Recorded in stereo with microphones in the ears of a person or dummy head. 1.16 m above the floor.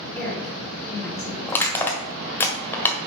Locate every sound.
0.1 s a woman speaking: centre (ahead or behind), 4 m
1.5 s crushing: 10° left (ahead or behind), 1.5 m